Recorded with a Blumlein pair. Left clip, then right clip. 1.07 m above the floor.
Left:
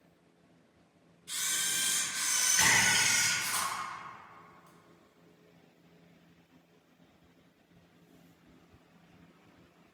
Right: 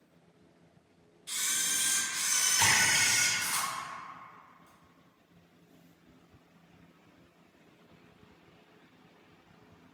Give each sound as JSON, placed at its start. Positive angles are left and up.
{"t": 1.3, "sound": "a camera shutter", "azimuth_deg": -35, "distance_m": 1.1}
{"t": 2.6, "sound": "a splash", "azimuth_deg": 20, "distance_m": 1.5}